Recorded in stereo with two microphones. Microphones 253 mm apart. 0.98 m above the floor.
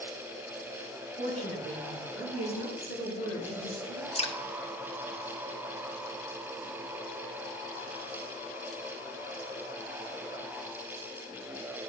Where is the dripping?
25° left (ahead or behind), 0.6 m.